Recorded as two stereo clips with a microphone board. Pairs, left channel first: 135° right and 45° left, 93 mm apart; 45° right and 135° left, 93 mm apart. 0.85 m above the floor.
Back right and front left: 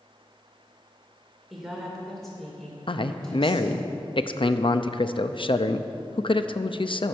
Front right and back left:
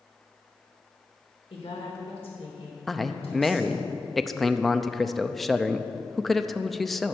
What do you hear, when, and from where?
1.5 s a woman speaking: 45° right, 3.5 m; by 3.9 s 55° right, 5 m
2.9 s a man speaking: 130° right, 0.5 m